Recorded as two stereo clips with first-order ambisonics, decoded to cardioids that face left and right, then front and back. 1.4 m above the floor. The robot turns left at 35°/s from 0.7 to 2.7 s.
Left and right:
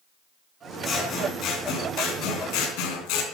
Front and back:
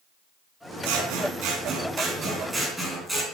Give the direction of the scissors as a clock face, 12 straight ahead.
7 o'clock.